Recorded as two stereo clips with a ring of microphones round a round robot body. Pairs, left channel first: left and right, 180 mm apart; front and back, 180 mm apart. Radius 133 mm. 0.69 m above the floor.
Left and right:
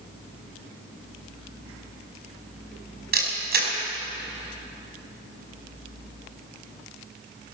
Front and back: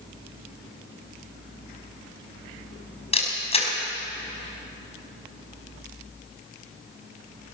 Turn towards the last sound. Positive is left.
turn(degrees=-55)